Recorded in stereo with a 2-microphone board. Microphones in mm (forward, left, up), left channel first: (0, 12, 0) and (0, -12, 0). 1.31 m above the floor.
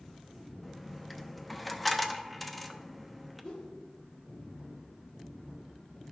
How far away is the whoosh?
About 2 m.